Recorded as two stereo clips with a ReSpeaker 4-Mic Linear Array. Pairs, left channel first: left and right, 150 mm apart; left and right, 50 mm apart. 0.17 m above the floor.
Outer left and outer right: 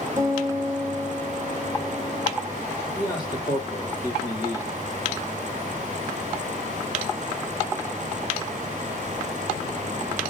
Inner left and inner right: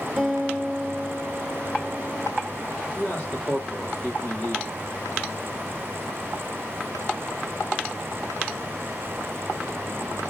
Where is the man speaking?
25° left (ahead or behind), 5.5 m.